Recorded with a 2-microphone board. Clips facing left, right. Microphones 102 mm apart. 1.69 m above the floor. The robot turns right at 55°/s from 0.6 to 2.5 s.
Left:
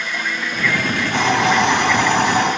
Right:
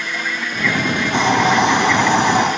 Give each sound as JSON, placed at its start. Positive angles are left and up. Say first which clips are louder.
{"t": 1.1, "sound": "a hiss", "louder": "right 1 dB", "azimuth_deg": -160, "distance_m": 2.0}